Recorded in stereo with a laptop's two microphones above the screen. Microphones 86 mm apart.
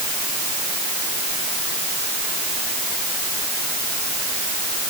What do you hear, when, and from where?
Only background noise.